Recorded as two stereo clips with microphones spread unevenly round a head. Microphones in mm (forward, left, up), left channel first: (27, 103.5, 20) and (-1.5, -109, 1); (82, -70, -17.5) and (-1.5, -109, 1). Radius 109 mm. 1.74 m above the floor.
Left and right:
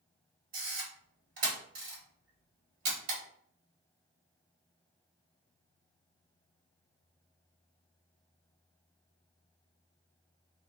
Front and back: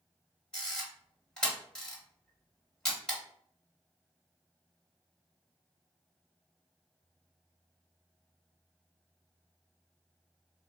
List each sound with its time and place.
0.5 s a camera shutter: 65° right, 1.9 m